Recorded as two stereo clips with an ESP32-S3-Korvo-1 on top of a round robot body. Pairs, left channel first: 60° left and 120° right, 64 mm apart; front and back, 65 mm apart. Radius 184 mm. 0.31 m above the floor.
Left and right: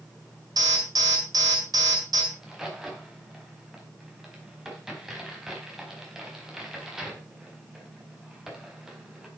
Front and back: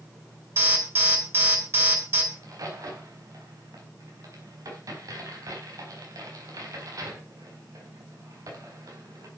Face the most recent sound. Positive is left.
turn(degrees=155)